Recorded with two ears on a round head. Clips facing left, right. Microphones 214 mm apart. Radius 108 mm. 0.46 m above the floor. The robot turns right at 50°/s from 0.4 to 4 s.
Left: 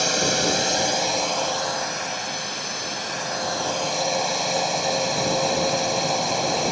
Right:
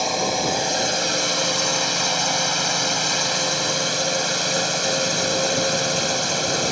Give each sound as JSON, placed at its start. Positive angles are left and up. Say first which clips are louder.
{"t": 0.0, "sound": "a drone", "louder": "even", "azimuth_deg": 165}